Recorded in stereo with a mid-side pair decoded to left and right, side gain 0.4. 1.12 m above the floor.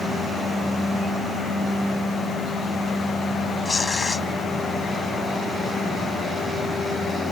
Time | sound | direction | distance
3.6 | tearing paper | 30° left | ?